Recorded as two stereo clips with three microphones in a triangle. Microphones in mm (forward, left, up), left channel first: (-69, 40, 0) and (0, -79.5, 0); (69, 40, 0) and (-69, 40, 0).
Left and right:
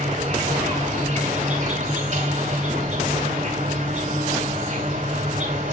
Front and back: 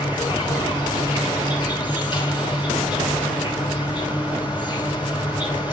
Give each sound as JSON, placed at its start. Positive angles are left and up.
{"t": 0.0, "sound": "an insect", "azimuth_deg": -55, "distance_m": 2.5}